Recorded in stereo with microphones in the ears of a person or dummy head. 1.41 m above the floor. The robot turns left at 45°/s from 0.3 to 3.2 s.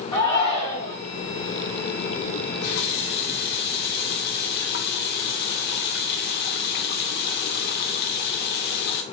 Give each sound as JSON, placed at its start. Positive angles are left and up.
{"t": 0.1, "sound": "a shout", "side_deg": 25, "distance_m": 1.8}
{"t": 2.3, "sound": "a running tap", "azimuth_deg": 100, "distance_m": 0.7}